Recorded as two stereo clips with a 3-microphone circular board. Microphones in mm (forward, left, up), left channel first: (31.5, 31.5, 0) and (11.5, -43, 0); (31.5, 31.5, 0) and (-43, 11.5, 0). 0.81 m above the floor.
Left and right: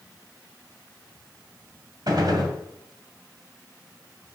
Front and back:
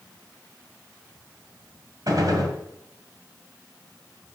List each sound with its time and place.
2.1 s a gunshot: 130° right, 1.9 m